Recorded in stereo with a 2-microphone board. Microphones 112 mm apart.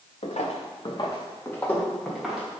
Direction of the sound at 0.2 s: 85° left.